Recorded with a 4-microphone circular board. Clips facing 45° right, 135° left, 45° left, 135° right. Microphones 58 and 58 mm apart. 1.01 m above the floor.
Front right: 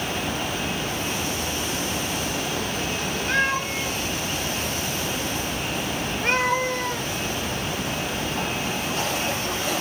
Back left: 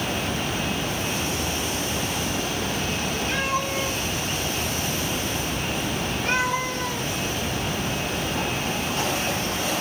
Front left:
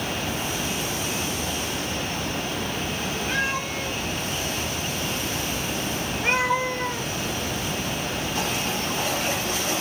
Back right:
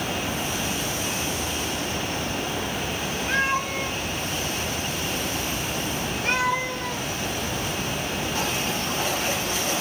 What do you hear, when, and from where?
3.3 s a cat meowing: 85° right, 1.8 m; by 7.1 s 5° left, 1.4 m